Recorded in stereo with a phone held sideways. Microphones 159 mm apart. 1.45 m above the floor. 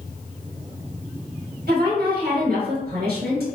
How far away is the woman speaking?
About 1.6 m.